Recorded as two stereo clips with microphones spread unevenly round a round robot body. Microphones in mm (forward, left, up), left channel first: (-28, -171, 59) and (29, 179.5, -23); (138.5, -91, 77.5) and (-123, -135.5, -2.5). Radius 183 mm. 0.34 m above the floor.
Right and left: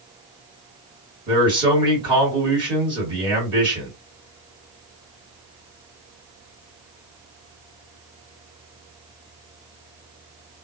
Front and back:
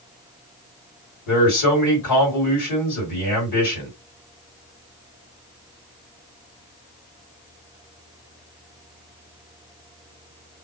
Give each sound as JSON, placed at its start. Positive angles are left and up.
{"t": 1.3, "sound": "a man speaking", "azimuth_deg": 20, "distance_m": 2.0}